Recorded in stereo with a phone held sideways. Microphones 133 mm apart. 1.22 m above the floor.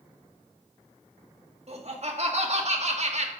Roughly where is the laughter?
Right.